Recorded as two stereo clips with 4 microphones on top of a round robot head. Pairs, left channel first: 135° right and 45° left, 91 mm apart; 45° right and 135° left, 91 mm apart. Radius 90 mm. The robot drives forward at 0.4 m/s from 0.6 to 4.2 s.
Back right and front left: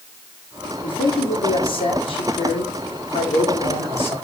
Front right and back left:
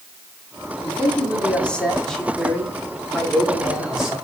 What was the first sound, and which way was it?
A man speaking, 115° right.